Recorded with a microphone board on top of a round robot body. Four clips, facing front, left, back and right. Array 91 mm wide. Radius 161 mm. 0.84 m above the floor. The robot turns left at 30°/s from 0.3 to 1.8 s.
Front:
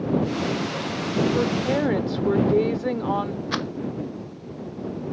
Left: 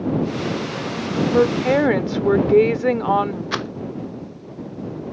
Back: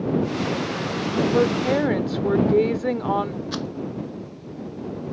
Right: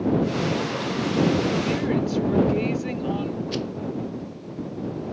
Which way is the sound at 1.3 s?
110° left.